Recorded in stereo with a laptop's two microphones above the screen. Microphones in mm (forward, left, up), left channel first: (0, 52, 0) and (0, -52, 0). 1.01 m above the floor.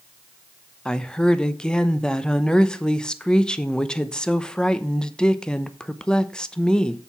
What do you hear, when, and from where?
0.8 s a woman speaking: 5° left (ahead or behind), 0.7 m